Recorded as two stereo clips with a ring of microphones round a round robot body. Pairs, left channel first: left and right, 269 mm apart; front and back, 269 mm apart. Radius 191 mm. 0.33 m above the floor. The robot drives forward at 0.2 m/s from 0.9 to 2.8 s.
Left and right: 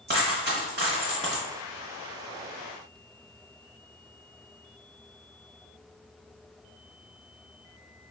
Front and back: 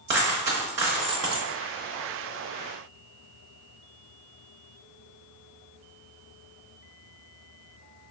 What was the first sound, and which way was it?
A dropped coin, 140° right.